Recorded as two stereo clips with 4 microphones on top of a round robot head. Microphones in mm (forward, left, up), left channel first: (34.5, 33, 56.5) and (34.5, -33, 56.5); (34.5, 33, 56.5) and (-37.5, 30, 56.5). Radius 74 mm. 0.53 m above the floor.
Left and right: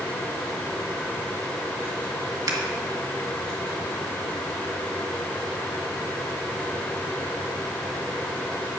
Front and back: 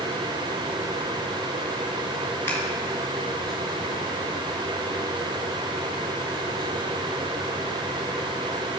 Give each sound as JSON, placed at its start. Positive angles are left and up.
{"t": 2.5, "sound": "scissors", "azimuth_deg": -60, "distance_m": 1.9}